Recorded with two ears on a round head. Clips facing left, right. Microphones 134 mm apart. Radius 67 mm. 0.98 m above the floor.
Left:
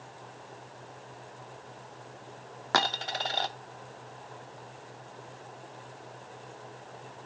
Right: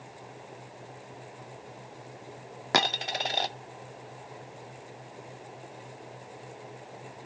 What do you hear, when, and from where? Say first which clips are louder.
2.7 s a dropped coin: right 1 dB; 20° right (ahead or behind), 0.5 m